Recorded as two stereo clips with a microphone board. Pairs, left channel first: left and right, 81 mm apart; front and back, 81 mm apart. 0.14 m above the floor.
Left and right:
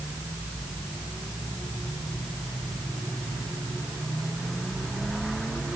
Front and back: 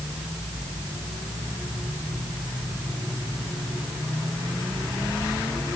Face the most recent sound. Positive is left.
No sound to turn to.